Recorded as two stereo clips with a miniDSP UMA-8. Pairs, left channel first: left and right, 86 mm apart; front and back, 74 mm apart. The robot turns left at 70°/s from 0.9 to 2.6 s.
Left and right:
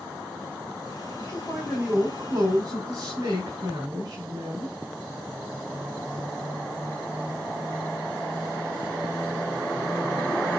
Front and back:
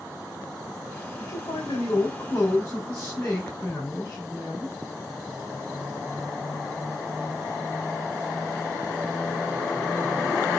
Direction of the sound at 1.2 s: 30° left.